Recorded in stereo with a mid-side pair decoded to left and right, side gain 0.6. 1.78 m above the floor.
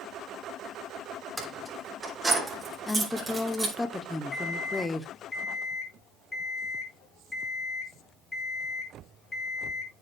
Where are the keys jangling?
10° right, 5.5 m; by 3.7 s 25° right, 5 m.